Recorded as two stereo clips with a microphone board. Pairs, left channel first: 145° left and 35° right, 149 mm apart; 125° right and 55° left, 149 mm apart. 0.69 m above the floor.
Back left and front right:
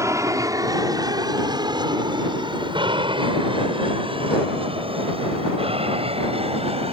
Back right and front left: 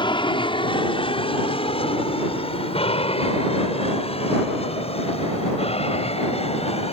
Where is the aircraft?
90° right; by 6.9 s 80° right.